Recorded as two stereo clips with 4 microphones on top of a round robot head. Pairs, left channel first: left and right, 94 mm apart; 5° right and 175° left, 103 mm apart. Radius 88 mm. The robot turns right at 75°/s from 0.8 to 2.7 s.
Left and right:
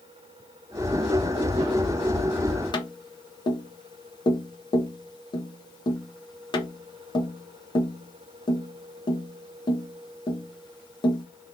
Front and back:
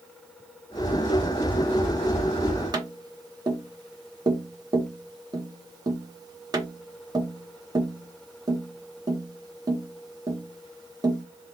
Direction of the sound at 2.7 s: 125° left.